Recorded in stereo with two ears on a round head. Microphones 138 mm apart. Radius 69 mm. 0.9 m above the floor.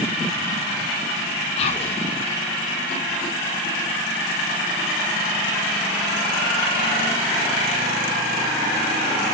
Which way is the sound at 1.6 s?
40° left (ahead or behind).